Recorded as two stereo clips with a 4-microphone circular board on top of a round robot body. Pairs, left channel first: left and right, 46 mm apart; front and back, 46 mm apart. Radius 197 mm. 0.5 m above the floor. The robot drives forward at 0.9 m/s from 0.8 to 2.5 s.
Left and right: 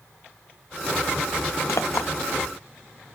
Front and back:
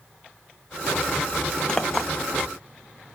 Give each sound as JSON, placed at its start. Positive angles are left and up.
{"t": 1.7, "sound": "a clink", "azimuth_deg": 75, "distance_m": 0.9}